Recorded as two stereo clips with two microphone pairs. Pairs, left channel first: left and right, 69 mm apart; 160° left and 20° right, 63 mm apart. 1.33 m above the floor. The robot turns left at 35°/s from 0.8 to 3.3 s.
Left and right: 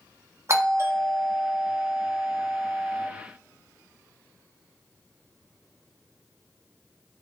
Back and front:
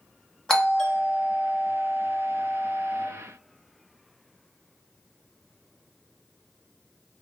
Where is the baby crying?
No baby crying in this recording.